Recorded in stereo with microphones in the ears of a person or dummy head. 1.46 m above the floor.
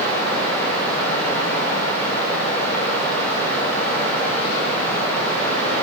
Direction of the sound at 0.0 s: 10° left (ahead or behind).